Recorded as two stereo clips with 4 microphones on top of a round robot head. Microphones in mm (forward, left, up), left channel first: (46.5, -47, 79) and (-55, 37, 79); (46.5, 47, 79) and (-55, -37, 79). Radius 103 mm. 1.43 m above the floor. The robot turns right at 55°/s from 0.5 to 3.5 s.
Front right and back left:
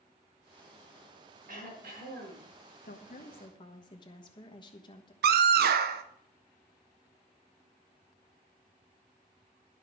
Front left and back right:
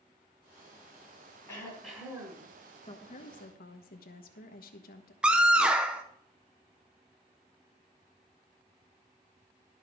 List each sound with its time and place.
1.5 s throat clearing: 115° left, 4 m; by 2.5 s 170° left, 4 m
2.8 s a woman speaking: 15° right, 1.2 m; by 5.1 s 20° left, 1.2 m
5.2 s a scream: 135° left, 0.6 m